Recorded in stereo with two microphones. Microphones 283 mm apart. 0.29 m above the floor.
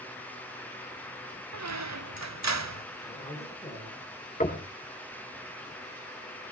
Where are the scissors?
No scissors in this recording.